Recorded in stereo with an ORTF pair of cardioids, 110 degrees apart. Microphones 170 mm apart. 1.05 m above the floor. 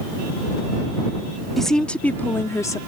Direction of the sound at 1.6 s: Straight ahead.